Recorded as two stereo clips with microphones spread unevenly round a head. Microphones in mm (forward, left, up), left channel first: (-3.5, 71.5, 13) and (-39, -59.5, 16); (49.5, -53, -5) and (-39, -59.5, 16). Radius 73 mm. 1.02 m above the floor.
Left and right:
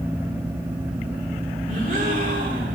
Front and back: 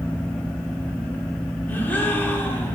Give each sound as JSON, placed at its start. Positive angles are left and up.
{"t": 1.7, "sound": "a gasp", "azimuth_deg": -65, "distance_m": 2.5}